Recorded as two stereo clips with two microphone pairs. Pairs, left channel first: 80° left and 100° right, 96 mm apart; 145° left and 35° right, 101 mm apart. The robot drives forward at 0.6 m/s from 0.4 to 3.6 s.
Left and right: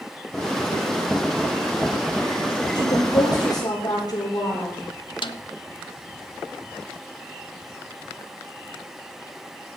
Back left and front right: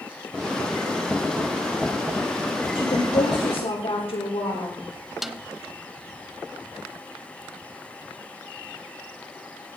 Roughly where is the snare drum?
Ahead left.